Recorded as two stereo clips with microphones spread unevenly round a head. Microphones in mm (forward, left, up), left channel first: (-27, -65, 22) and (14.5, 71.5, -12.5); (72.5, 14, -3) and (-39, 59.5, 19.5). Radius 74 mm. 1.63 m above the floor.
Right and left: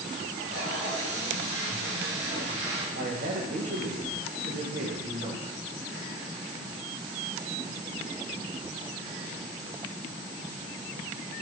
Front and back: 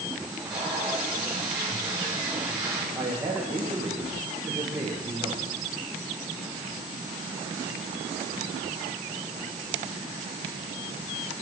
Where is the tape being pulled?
75° left, 6.5 m.